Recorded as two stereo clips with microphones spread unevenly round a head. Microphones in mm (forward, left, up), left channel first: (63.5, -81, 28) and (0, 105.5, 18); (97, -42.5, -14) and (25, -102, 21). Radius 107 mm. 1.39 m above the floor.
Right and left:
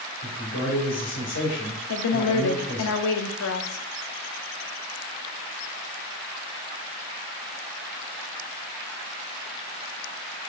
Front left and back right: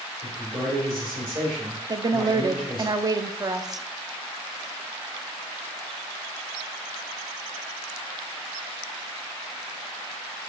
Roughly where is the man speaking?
Right.